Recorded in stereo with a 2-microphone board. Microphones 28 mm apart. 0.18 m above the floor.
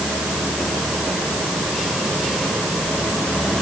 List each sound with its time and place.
Only background noise.